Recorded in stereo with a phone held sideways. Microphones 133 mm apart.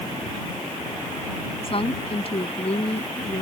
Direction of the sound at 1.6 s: 45° left (ahead or behind).